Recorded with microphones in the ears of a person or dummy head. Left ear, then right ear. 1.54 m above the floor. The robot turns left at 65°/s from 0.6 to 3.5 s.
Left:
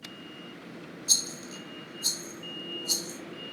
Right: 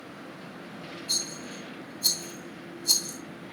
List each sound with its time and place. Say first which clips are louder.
1.1 s a rattle: left 3 dB; 40° left (ahead or behind), 2 m; by 3.2 s 75° right (ahead or behind), 2 m